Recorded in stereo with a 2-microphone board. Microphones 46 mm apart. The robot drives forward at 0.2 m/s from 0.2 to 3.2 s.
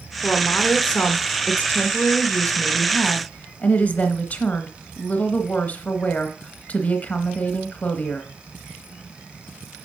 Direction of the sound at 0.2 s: 35° left (ahead or behind).